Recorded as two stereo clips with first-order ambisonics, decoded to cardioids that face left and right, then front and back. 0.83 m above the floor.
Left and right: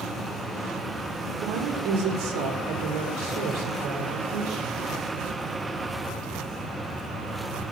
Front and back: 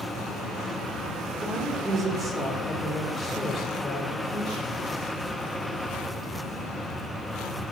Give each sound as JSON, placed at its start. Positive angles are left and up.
{"t": 1.4, "sound": "a woman speaking", "azimuth_deg": -115, "distance_m": 2.0}